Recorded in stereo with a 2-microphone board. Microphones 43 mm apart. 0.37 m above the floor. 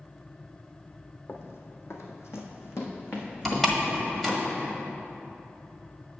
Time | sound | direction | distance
1.3 | running footsteps | 55° left (ahead or behind) | 1.1 m
3.5 | a door slam | 5° left (ahead or behind) | 1.5 m